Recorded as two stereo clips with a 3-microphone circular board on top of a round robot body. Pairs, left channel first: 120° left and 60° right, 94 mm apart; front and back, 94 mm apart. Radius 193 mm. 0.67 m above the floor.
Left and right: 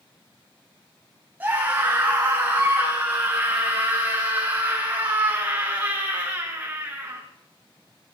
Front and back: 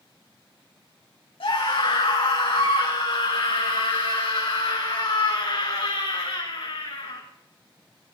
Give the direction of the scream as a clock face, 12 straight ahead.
12 o'clock.